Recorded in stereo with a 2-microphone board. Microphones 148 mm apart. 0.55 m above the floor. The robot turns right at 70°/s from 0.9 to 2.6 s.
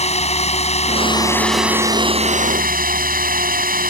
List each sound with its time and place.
0.0 s a drone: 135° left; by 3.9 s 105° right